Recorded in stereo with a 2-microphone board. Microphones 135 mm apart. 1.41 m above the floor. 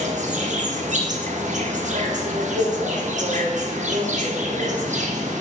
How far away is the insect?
About 0.9 m.